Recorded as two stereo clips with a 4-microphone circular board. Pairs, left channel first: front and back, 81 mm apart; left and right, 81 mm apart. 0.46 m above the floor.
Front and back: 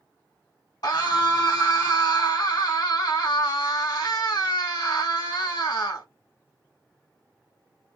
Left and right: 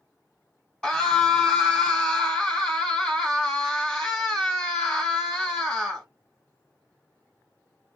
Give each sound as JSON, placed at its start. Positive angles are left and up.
{"t": 0.8, "sound": "a scream", "azimuth_deg": 10, "distance_m": 2.5}